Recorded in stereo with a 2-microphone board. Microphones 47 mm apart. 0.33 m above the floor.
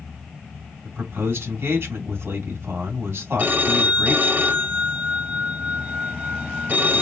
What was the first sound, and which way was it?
A man speaking, 55° right (ahead or behind).